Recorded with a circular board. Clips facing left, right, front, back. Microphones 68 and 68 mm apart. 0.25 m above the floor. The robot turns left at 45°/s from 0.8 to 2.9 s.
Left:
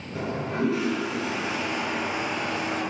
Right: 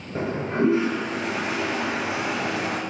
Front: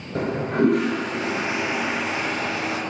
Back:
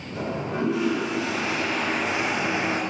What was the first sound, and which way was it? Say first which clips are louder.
A toilet flushing: right 4 dB, front 6 dB; 30° right.